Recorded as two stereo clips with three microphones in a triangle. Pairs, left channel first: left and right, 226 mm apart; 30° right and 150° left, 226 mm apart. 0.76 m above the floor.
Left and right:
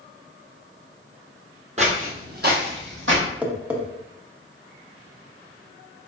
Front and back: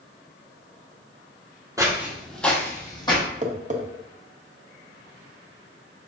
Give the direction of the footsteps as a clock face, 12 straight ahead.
5 o'clock.